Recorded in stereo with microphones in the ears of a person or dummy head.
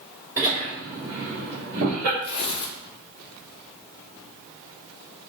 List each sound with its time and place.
0.4 s laughter: 10° right (ahead or behind), 2 m; by 2.1 s 60° right (ahead or behind), 1.3 m
2.2 s tearing paper: 30° left (ahead or behind), 0.9 m